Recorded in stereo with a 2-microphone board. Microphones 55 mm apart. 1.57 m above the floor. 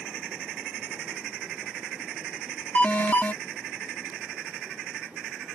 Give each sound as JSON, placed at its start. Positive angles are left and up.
{"t": 2.8, "sound": "an alarm", "side_deg": 30}